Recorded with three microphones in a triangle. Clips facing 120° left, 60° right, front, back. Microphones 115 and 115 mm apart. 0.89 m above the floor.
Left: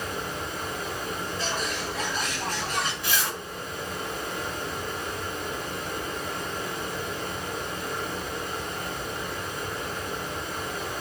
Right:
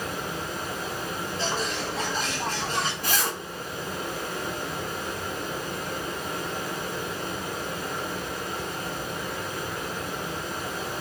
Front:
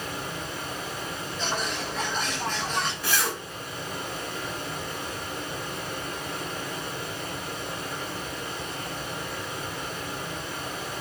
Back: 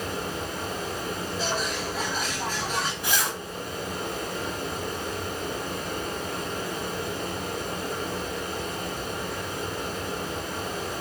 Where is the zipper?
110° right, 1.4 m.